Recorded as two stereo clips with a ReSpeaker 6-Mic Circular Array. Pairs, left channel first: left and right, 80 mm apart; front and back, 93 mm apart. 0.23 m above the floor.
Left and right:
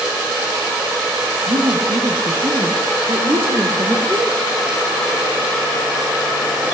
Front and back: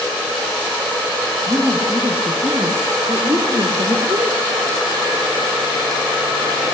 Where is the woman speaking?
90° right, 5.5 m; by 4.3 s 135° right, 5.5 m.